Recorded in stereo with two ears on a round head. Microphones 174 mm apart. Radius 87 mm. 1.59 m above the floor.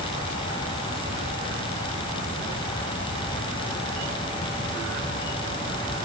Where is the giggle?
I don't hear a giggle.